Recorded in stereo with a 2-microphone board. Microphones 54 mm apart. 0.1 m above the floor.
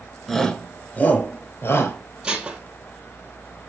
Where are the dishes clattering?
15° right (ahead or behind), 2 m.